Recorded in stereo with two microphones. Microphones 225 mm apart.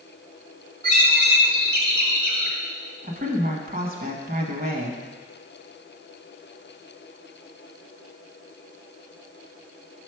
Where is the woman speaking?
40° right (ahead or behind), 1.3 m.